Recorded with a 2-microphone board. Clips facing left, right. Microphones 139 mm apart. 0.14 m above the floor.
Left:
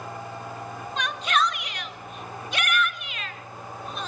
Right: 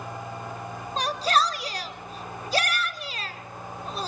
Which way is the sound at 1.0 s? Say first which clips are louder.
Right 2 dB; 35° right (ahead or behind).